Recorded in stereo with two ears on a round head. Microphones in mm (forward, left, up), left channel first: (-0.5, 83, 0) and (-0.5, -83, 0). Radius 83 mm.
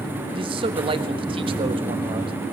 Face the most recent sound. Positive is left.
turn(degrees=-30)  # may be behind; listen again after turning